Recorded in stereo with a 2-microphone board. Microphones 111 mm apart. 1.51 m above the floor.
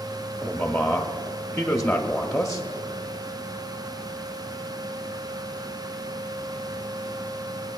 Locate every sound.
0.4 s a man speaking: 5° left (ahead or behind), 0.5 m